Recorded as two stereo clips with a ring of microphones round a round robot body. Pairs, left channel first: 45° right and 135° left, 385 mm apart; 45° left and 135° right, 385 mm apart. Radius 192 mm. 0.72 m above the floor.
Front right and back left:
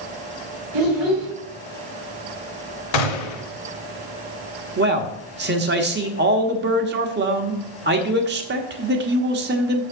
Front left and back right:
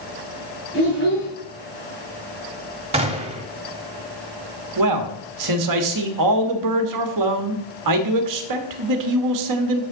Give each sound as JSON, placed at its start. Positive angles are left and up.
{"t": 0.7, "sound": "a child speaking", "azimuth_deg": 110, "distance_m": 2.5}
{"t": 2.9, "sound": "a gunshot", "azimuth_deg": -60, "distance_m": 1.1}
{"t": 4.8, "sound": "a man speaking", "azimuth_deg": -165, "distance_m": 1.3}